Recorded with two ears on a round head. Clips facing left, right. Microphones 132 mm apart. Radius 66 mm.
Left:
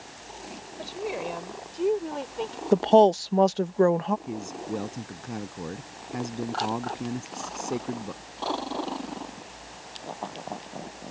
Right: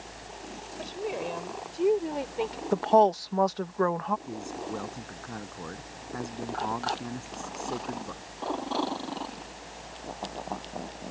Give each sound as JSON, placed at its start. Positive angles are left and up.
{"t": 0.8, "sound": "a woman speaking", "side_deg": 5}
{"t": 2.7, "sound": "a woman speaking", "side_deg": 30}
{"t": 4.3, "sound": "a man speaking", "side_deg": 20}